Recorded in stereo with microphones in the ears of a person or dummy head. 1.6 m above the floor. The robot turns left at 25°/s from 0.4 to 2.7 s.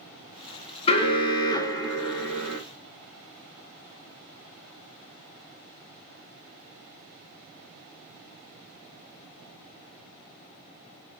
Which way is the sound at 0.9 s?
55° left.